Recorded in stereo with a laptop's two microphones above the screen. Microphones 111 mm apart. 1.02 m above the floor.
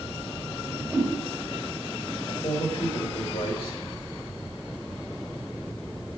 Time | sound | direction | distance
0.6 | a whoosh | 5° right (ahead or behind) | 2.5 m
2.3 | a man speaking | 60° left (ahead or behind) | 3 m